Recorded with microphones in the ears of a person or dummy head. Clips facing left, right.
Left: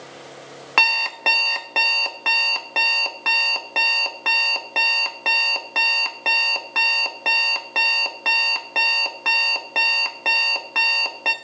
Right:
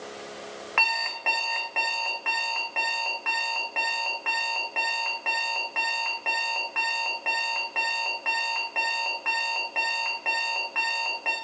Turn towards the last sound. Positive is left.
turn(degrees=60)  # may be behind; listen again after turning